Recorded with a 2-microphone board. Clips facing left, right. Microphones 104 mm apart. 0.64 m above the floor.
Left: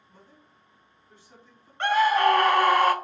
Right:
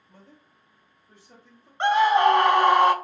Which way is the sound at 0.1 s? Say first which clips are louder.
Right 3 dB; 70° right (ahead or behind).